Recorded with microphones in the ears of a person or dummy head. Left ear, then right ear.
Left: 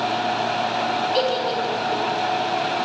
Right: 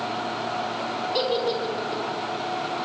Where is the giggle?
45° left (ahead or behind), 3.5 m.